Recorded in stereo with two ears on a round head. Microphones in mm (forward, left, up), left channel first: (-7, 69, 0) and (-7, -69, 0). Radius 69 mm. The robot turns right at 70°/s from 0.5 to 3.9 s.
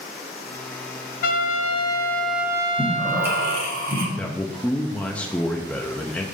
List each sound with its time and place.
1.2 s a trumpet: 105° left, 0.6 m; by 3.7 s 75° right, 0.6 m
2.8 s breathing: 160° left, 2.0 m; by 4.1 s 120° right, 2.0 m
4.2 s a man speaking: 10° left (ahead or behind), 0.6 m